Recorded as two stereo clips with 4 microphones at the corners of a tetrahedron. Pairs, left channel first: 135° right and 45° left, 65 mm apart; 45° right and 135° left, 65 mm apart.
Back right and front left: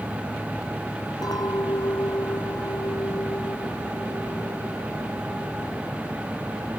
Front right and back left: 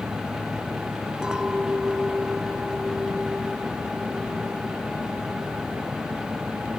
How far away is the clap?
No clap in this recording.